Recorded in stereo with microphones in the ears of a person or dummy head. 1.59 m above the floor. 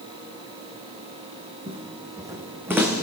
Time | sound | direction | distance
1.7 | footsteps | 25° right (ahead or behind) | 3.5 m